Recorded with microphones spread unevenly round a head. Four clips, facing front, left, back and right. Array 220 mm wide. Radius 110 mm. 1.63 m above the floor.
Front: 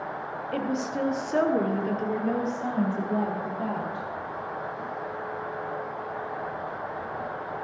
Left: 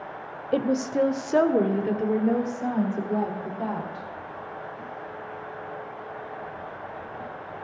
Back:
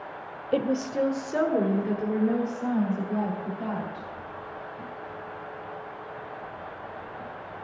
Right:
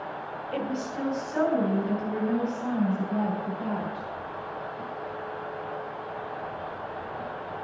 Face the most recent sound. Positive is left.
turn(degrees=60)